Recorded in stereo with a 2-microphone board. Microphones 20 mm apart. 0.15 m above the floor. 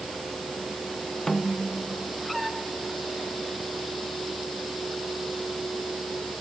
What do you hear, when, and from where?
1.3 s a snare drum: 25° left (ahead or behind)